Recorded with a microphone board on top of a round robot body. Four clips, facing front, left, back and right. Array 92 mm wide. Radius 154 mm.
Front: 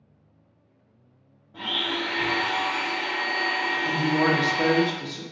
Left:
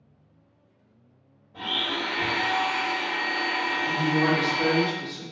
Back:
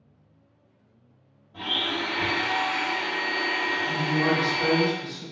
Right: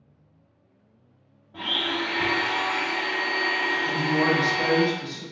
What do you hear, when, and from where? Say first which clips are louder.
1.5 s a blender: right 2 dB, even; 65° right, 0.7 m
3.9 s a woman speaking: left 1 dB, front 3 dB; 10° right, 1.0 m